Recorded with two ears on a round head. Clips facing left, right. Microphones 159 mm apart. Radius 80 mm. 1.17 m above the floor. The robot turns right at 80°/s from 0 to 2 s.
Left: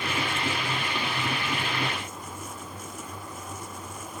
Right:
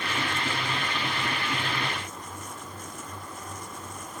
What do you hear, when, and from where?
Only background noise.